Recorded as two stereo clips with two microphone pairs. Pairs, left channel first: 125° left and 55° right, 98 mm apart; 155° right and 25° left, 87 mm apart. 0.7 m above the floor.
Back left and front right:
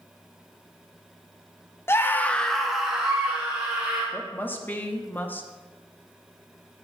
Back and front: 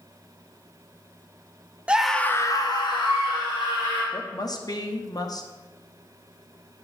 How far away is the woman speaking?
About 0.7 m.